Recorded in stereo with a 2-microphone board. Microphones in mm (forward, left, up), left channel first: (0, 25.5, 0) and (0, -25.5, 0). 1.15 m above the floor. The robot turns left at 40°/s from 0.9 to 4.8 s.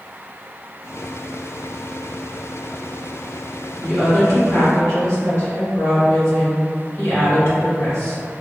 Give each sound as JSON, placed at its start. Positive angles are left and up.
{"t": 3.8, "sound": "a woman speaking", "azimuth_deg": 125, "distance_m": 1.7}